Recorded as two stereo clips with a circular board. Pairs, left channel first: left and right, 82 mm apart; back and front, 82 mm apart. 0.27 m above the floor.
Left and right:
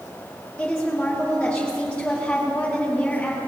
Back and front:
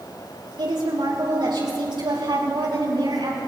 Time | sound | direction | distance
0.6 | a woman speaking | 15° left | 6 m